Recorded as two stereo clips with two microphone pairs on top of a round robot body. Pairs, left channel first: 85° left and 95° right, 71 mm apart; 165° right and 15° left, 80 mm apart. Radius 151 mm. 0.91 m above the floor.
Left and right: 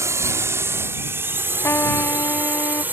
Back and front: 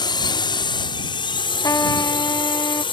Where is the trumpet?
145° left.